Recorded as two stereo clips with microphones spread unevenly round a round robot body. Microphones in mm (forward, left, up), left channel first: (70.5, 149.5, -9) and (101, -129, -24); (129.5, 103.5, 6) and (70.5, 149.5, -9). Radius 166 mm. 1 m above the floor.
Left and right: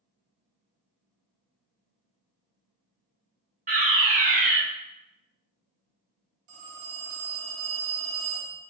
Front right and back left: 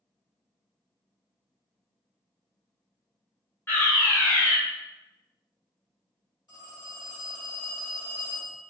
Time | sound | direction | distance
3.7 | a fire alarm | 100° right | 1.1 m
6.5 | a phone ringing | 110° right | 1.5 m